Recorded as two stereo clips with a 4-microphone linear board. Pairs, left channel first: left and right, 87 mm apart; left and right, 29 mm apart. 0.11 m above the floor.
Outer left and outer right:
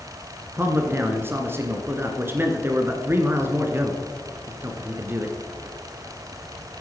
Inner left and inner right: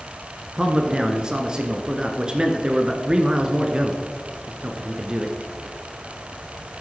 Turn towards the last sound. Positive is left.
turn(degrees=-30)  # may be behind; listen again after turning